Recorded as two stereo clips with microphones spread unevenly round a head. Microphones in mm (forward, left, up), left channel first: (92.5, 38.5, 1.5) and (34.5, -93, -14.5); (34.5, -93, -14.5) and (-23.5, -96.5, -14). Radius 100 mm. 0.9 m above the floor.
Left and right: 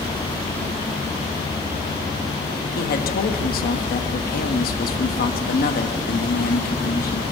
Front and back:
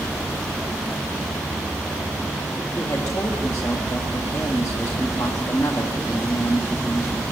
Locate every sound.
2.8 s a man speaking: 65° left, 1.6 m